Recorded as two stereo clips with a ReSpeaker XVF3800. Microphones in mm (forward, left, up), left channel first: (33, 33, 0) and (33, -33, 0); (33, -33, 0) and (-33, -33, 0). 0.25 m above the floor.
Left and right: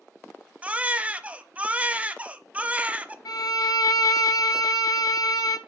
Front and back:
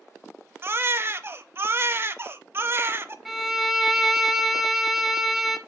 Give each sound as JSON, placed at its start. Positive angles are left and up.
{"t": 0.6, "sound": "a baby crying", "azimuth_deg": -150, "distance_m": 0.5}
{"t": 3.2, "sound": "a violin", "azimuth_deg": 95, "distance_m": 0.8}